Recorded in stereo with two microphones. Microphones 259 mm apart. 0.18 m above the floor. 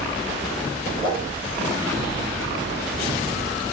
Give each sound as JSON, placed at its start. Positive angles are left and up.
{"t": 1.0, "sound": "a whoosh", "side_deg": -35, "distance_m": 6.5}